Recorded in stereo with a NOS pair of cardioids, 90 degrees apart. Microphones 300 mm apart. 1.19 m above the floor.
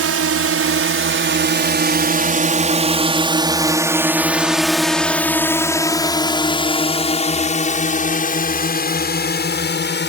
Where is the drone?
50° right; by 10.1 s 35° left.